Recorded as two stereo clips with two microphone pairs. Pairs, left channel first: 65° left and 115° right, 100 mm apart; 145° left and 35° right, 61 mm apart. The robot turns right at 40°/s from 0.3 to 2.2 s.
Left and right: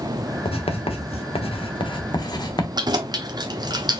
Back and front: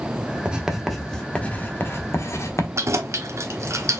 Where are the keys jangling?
70° right, 0.9 m.